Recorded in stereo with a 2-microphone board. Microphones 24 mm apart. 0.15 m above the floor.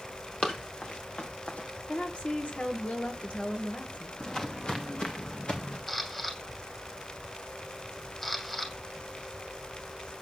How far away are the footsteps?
About 2 m.